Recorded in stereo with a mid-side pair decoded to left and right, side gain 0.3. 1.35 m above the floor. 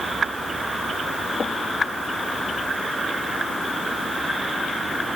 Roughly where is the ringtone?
No ringtone in this recording.